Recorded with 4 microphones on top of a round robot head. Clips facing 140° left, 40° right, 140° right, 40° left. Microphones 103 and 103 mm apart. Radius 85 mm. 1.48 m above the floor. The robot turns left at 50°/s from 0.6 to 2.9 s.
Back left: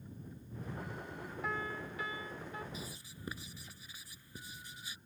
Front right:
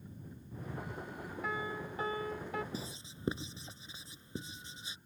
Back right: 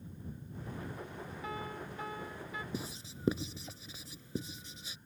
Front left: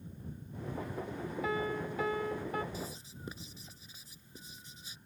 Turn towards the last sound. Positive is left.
turn(degrees=-110)